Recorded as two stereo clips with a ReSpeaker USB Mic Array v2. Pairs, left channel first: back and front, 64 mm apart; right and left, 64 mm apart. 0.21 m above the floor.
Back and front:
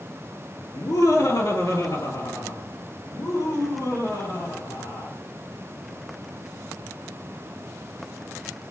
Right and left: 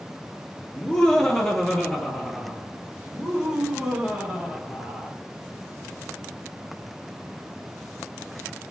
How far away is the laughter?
About 3 m.